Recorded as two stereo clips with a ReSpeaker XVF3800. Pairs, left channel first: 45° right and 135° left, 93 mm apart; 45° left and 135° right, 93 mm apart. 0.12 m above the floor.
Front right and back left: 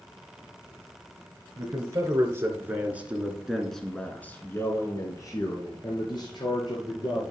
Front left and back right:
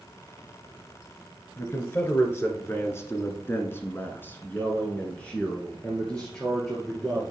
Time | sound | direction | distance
1.6 | a man speaking | 100° left | 1.7 m